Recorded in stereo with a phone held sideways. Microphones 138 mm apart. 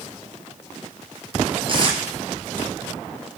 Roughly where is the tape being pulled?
Right.